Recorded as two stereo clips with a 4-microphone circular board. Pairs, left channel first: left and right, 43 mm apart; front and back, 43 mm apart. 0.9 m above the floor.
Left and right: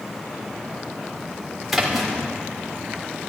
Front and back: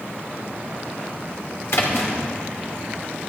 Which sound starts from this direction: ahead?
A splash, at 1.7 s.